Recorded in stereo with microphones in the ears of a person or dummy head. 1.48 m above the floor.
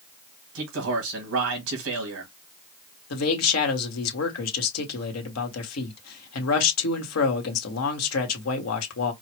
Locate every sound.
0.6 s a man speaking: 70° right (ahead or behind), 1.8 m
3.1 s a man speaking: 85° left, 1.5 m